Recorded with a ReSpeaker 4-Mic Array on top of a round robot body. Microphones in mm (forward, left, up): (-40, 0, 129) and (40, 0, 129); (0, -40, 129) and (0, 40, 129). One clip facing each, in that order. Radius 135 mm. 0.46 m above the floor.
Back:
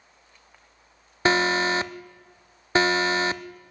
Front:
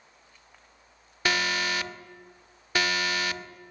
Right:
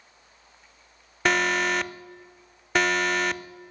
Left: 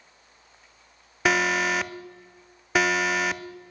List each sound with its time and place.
1.2 s an alarm: 175° left, 0.5 m